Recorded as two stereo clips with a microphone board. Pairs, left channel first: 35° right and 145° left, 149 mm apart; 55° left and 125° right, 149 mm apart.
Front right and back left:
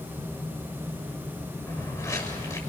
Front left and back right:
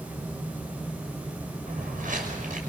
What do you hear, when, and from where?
1.7 s footsteps: 100° right, 6.5 m